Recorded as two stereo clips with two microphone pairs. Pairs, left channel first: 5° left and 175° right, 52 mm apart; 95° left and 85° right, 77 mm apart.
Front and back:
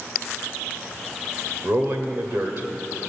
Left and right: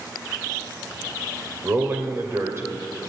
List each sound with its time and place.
1.6 s a man speaking: 135° right, 1.8 m